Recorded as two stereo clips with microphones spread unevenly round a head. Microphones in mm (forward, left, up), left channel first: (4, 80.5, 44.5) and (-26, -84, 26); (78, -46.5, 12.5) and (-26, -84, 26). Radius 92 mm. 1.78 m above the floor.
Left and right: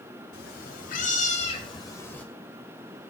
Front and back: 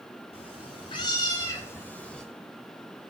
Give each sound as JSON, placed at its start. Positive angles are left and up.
{"t": 0.3, "sound": "a cat meowing", "azimuth_deg": 70, "distance_m": 2.5}